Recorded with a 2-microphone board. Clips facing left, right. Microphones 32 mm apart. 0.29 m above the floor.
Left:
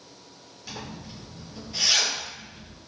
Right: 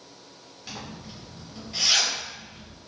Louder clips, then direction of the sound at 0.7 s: Left 1 dB; 20° right (ahead or behind).